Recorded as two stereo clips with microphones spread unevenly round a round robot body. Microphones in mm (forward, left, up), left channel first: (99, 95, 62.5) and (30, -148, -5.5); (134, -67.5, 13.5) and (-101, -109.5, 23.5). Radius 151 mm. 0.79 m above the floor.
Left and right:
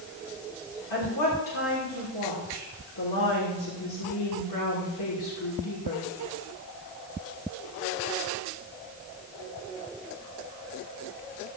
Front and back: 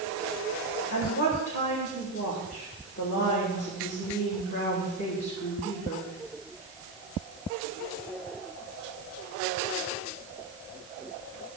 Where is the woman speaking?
75° left, 3 m.